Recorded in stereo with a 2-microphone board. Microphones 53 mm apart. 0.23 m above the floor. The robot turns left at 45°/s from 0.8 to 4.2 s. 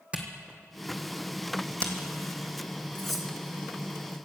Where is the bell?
I don't hear a bell.